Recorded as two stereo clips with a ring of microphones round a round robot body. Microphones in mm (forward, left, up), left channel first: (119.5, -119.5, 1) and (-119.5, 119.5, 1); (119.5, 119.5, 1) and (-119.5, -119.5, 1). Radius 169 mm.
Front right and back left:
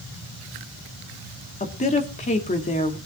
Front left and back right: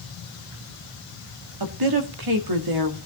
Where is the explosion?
No explosion in this recording.